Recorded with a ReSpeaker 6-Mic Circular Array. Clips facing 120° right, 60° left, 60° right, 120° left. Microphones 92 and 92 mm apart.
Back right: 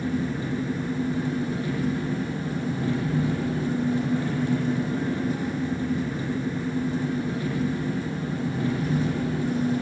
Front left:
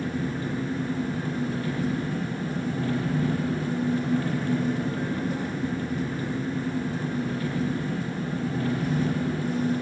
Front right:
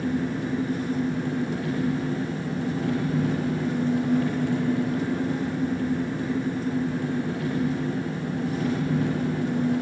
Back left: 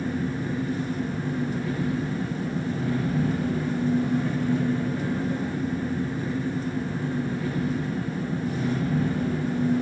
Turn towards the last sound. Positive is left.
turn(degrees=-50)